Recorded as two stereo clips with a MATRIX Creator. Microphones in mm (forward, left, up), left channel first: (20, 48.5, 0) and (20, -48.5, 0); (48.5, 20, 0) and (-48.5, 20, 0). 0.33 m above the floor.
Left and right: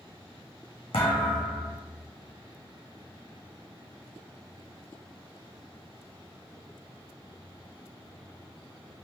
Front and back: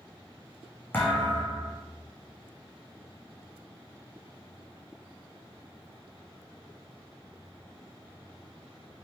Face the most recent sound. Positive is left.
turn(degrees=70)